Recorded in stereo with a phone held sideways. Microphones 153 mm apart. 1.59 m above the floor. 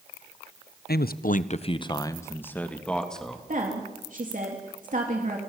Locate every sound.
0.9 s a man speaking: 80° left, 0.9 m; by 3.4 s centre (ahead or behind), 2.5 m
3.5 s a woman speaking: 55° right (ahead or behind), 3 m